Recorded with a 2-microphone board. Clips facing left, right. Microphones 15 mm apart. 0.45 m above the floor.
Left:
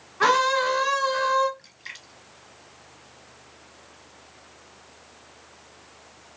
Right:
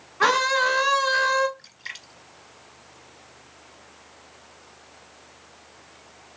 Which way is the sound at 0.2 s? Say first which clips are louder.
Even; 10° right (ahead or behind).